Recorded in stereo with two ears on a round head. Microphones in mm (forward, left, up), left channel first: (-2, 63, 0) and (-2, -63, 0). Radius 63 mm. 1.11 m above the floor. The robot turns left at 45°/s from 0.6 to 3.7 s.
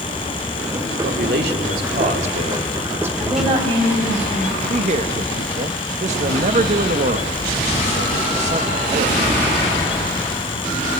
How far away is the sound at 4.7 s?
About 1.0 m.